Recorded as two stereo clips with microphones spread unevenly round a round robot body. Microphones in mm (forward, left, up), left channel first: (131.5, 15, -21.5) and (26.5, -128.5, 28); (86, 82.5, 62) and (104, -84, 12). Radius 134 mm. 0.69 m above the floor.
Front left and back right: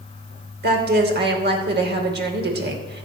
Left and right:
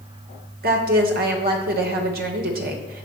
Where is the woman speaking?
95° right, 3 m.